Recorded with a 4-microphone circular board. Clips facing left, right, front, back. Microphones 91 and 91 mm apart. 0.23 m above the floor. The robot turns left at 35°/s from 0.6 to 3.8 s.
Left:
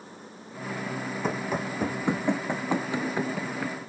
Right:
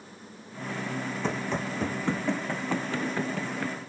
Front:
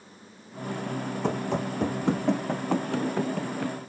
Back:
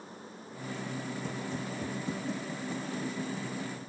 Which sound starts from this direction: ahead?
Running footsteps, at 1.2 s.